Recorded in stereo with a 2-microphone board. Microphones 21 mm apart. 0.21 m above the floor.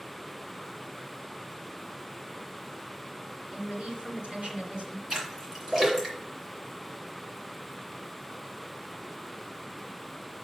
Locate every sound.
3.5 s a woman speaking: 60° right (ahead or behind), 3 m
5.1 s a splash: 25° right (ahead or behind), 2.5 m